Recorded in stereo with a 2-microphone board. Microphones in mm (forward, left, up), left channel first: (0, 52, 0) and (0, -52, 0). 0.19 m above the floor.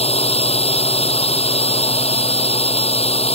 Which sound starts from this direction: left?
A drone, at 0.0 s.